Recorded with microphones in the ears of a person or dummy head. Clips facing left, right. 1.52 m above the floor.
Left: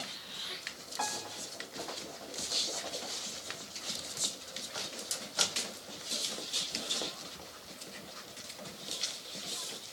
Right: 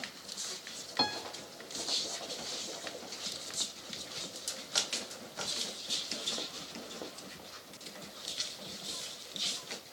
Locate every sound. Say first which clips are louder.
1.0 s a piano: right 3 dB; 50° right (ahead or behind), 1.3 m